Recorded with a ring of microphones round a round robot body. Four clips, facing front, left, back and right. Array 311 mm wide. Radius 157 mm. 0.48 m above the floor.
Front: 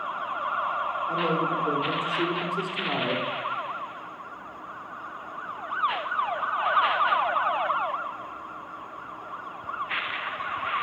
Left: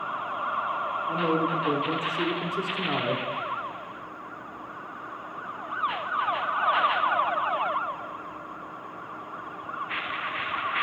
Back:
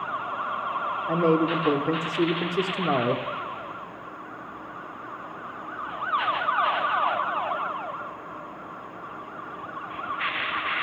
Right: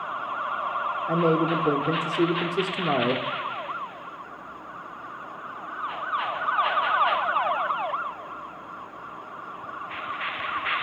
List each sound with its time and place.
1.1 s a man speaking: 145° right, 1.0 m